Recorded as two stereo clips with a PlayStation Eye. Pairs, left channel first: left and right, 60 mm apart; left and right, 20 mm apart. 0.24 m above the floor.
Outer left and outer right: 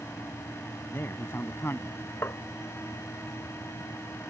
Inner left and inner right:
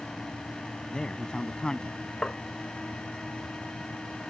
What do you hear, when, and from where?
0.9 s a man speaking: 45° left (ahead or behind)
2.2 s tapping: 45° left (ahead or behind)